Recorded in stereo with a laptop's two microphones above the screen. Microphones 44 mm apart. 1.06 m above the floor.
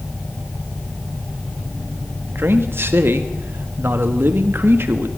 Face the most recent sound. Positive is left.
turn(degrees=-60)  # may be behind; listen again after turning